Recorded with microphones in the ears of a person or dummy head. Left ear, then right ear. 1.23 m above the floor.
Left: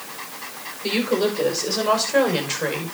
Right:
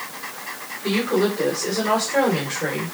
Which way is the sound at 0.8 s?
30° left (ahead or behind).